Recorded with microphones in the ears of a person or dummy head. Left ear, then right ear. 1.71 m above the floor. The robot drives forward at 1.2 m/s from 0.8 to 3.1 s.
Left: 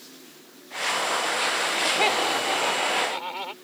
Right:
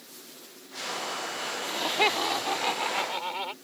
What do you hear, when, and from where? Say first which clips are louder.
1.6 s laughter: even; 5° right (ahead or behind)